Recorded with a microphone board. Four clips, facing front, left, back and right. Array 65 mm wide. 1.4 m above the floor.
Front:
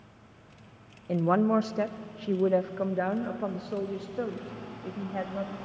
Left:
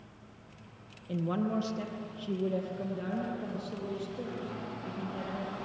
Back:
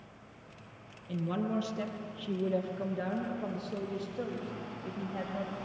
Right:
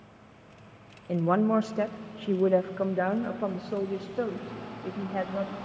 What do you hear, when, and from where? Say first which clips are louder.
1.1 s a woman speaking: right 8 dB, front 9 dB; 30° right, 0.8 m; by 5.6 s 70° right, 3 m